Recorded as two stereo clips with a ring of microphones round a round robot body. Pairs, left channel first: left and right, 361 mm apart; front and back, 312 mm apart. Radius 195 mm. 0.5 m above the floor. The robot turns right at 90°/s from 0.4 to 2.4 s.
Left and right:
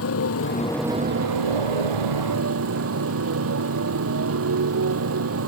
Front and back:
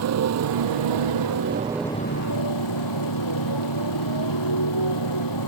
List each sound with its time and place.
0.0 s a motorcycle: 145° left; by 5.5 s 35° right